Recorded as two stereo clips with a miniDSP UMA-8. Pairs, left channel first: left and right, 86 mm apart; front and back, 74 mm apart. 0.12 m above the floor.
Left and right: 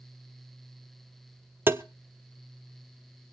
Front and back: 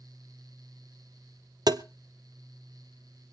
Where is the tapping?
155° right, 0.7 m.